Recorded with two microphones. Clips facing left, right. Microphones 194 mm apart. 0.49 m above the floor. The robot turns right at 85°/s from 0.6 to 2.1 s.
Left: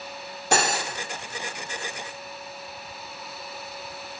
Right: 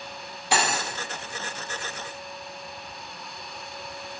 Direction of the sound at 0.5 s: 45° left (ahead or behind).